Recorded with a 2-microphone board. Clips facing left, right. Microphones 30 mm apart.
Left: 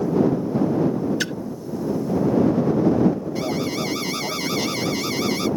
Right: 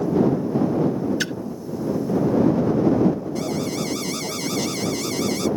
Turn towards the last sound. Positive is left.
turn(degrees=25)  # may be behind; listen again after turning